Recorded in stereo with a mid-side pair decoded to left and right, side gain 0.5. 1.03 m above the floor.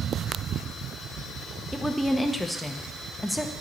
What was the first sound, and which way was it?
A woman speaking, 5° left.